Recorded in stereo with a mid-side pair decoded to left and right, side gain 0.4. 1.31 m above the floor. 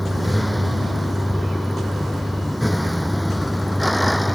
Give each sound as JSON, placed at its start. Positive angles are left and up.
{"t": 0.0, "sound": "a vehicle", "azimuth_deg": 5}